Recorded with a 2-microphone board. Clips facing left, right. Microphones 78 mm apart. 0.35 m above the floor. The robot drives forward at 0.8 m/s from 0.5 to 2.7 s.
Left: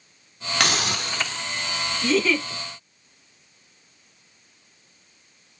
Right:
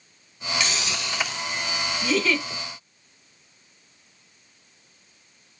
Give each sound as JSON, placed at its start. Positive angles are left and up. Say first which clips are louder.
{"t": 0.6, "sound": "a hiss", "louder": "left 6 dB", "side_deg": 70, "distance_m": 0.6}
{"t": 2.0, "sound": "a giggle", "louder": "left 2 dB", "side_deg": 0, "distance_m": 1.6}